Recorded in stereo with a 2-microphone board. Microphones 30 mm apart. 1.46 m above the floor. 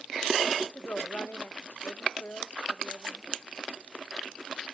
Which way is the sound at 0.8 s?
80° left.